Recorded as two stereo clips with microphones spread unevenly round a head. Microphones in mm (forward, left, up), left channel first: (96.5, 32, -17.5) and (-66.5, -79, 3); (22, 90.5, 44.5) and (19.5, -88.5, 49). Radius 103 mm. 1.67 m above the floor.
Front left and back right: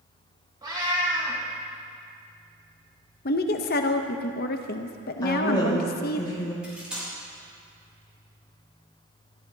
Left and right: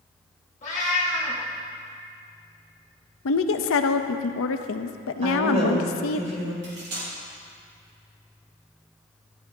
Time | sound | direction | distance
0.6 | a cat meowing | 145° left | 2.5 m
3.2 | a woman speaking | 85° left | 0.7 m
5.2 | a woman speaking | 35° right | 4 m
6.6 | cutlery clinking | 60° right | 4.5 m